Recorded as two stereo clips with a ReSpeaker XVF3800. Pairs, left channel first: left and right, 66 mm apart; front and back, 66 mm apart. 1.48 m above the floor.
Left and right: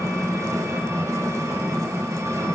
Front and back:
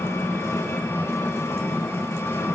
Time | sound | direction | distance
0.0 | an engine running | 50° right | 1.1 m